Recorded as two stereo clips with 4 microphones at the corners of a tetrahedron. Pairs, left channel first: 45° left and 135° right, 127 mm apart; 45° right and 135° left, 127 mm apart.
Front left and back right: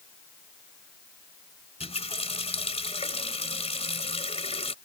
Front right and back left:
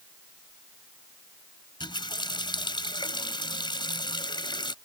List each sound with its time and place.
1.8 s a running tap: 10° left